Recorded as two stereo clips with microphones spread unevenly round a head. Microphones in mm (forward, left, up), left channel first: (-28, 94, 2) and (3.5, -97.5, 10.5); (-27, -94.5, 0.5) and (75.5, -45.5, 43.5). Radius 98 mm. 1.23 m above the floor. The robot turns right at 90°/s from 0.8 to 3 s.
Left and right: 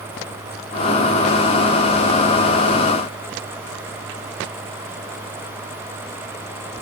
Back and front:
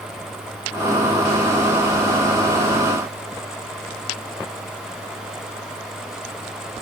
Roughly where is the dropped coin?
No dropped coin in this recording.